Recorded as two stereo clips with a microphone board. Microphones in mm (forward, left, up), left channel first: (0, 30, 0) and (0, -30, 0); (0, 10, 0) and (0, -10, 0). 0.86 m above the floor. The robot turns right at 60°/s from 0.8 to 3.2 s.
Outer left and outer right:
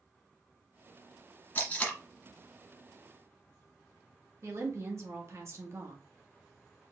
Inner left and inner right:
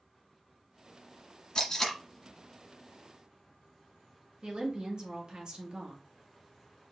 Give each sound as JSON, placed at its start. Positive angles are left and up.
{"t": 1.6, "sound": "tape being pulled", "side_deg": 30, "distance_m": 1.8}
{"t": 4.4, "sound": "a woman speaking", "side_deg": -50, "distance_m": 1.6}